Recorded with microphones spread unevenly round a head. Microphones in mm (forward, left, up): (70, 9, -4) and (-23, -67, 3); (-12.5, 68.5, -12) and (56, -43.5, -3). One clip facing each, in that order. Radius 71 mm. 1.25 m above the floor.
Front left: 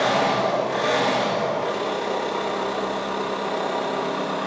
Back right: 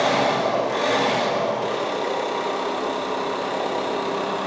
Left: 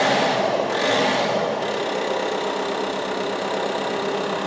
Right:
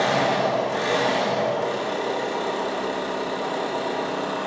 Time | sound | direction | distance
0.0 | an engine running | 150° left | 1.2 m